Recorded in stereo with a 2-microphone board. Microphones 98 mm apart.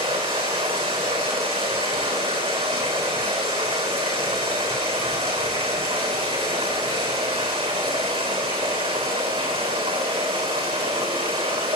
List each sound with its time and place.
0.0 s running water: 75° right (ahead or behind), 3.5 m